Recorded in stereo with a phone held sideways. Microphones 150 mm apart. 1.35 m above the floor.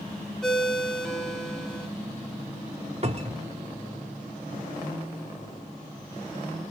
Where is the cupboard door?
40° right (ahead or behind), 0.8 m.